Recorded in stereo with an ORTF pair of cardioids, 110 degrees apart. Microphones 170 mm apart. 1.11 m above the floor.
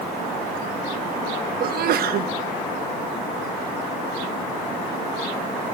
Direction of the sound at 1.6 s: 65° right.